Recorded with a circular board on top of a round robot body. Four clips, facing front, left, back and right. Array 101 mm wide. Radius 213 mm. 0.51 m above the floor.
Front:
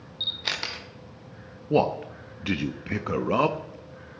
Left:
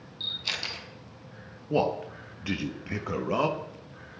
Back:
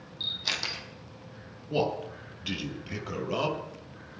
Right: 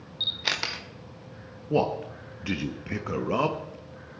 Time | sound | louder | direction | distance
0.2 | a camera shutter | right 6 dB, front 3 dB | 65° right | 2.5 m
1.7 | a man speaking | right 1 dB, front 6 dB | straight ahead | 1.4 m